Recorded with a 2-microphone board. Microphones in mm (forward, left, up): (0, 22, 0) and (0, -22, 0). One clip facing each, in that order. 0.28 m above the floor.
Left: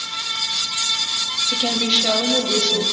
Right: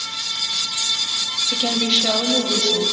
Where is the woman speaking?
5° left (ahead or behind), 0.9 m.